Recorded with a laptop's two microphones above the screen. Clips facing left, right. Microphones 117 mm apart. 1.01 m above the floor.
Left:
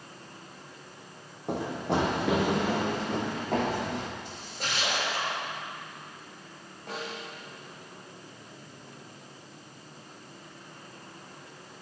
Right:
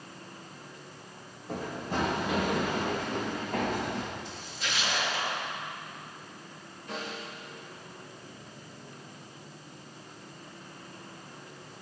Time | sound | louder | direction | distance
1.5 | running footsteps | left 5 dB | 65° left (ahead or behind) | 3 m
4.2 | a splash | left 1 dB | 50° left (ahead or behind) | 7 m
6.9 | a snare drum | left 1 dB | 60° left (ahead or behind) | 6 m